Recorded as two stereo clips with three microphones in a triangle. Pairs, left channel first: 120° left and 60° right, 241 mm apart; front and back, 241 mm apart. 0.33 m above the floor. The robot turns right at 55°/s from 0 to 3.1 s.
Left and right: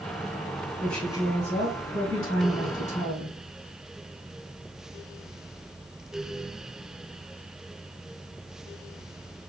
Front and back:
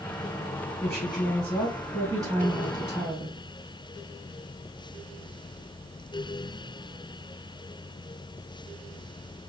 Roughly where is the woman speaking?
Ahead left.